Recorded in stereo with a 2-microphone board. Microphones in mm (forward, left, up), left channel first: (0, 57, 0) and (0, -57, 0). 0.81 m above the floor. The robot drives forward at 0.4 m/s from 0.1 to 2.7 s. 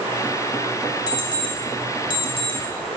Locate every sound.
1.1 s an alarm clock: 35° left (ahead or behind), 1.9 m; by 2.6 s 50° left (ahead or behind), 1.4 m